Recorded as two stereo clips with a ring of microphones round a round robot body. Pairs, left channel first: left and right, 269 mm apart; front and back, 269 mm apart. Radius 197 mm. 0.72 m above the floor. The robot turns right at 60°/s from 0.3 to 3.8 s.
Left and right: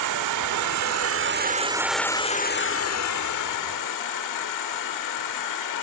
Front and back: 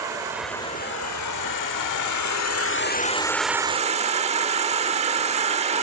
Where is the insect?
100° right, 1.2 m; by 5.8 s 110° left, 1.2 m.